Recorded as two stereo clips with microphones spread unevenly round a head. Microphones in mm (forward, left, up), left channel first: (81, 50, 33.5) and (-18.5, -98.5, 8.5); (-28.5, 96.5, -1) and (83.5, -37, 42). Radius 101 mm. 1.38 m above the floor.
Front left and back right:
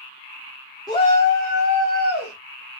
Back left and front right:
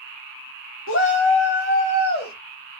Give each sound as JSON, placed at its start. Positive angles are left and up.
{"t": 0.9, "sound": "a shout", "azimuth_deg": 125, "distance_m": 0.9}